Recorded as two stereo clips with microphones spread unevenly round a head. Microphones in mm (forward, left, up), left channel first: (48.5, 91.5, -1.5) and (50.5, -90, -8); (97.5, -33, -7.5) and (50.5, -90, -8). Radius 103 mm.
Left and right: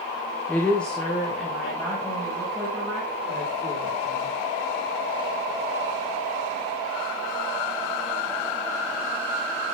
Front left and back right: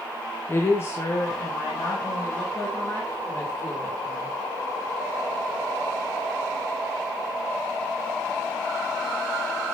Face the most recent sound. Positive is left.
turn(degrees=0)